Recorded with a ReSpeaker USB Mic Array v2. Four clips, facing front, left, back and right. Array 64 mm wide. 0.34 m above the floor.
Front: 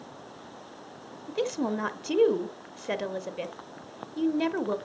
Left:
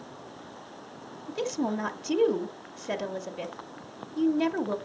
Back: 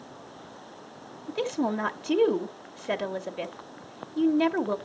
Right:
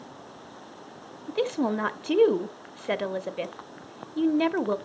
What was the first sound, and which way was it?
A woman speaking, 105° right.